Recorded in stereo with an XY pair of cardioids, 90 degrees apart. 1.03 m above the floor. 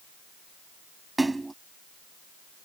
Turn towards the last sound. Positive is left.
turn(degrees=-20)